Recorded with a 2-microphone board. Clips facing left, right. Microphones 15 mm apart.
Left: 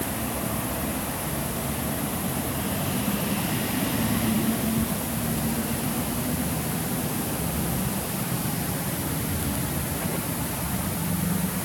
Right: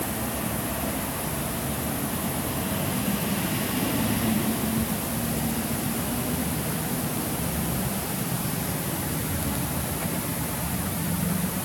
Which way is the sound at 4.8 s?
20° left (ahead or behind).